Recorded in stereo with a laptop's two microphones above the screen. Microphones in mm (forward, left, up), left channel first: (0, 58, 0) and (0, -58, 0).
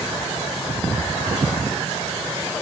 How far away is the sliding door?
I don't hear a sliding door.